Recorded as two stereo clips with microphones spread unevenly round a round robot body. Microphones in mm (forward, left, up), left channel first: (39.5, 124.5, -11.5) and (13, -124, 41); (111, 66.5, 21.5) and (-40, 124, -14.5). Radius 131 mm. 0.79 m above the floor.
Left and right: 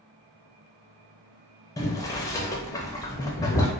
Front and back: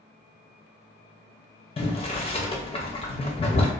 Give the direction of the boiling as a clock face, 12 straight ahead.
11 o'clock.